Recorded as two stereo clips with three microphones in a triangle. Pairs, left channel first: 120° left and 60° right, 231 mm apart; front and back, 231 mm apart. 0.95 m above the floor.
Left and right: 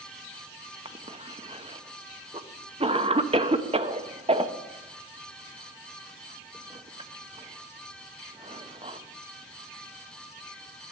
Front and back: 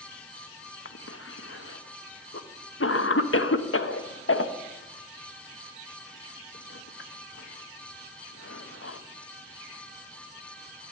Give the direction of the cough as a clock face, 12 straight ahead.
12 o'clock.